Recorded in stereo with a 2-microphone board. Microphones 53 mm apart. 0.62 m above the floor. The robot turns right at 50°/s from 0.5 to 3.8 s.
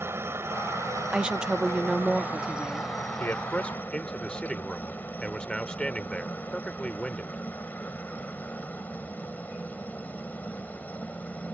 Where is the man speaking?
45° left (ahead or behind); by 7.4 s 20° left (ahead or behind).